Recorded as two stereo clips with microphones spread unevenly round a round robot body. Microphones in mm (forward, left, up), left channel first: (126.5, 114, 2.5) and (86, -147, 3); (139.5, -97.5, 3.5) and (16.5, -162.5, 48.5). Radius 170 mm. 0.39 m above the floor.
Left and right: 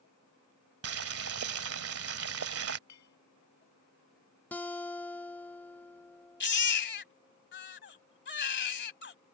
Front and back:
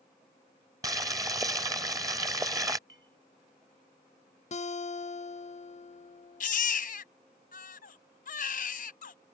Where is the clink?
125° left.